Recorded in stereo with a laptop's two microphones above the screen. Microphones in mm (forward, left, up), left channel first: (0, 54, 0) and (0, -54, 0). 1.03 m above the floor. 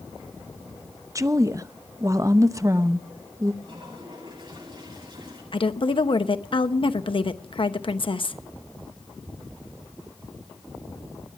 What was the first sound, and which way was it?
A woman speaking, 30° right (ahead or behind).